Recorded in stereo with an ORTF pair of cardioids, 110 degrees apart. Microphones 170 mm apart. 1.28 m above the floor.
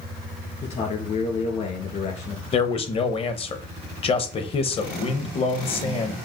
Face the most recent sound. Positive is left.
turn(degrees=35)